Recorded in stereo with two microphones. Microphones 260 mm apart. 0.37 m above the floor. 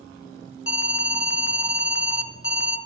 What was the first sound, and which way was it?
An alarm, 50° left (ahead or behind).